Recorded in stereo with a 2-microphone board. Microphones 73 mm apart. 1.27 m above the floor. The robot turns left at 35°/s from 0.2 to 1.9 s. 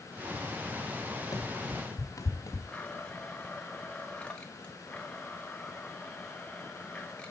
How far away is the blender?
About 1.2 m.